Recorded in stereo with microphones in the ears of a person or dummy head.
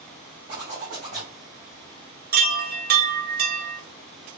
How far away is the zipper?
About 2.5 m.